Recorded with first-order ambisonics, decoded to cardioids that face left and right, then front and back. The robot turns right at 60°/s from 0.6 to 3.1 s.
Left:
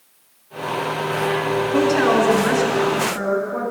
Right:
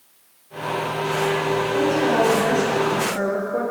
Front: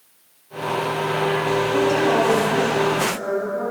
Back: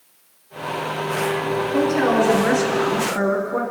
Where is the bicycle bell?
I don't hear a bicycle bell.